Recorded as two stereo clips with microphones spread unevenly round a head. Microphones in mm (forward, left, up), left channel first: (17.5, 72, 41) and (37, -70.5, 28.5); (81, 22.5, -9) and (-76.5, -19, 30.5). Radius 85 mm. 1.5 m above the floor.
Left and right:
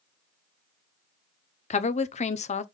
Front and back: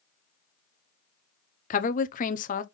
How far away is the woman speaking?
About 0.7 m.